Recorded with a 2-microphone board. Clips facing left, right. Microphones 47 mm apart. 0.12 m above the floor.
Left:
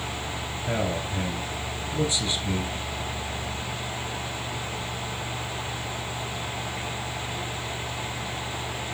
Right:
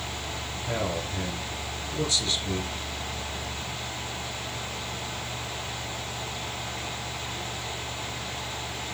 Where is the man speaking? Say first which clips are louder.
Left 2 dB; 20° left (ahead or behind), 1.9 m.